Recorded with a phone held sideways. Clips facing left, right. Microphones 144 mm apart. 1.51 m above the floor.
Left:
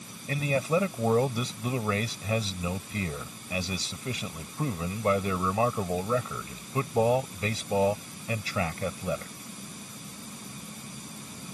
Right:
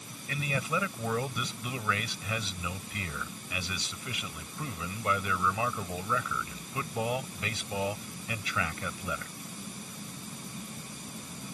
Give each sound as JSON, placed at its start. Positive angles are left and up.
{"t": 0.3, "sound": "a man speaking", "side_deg": 35}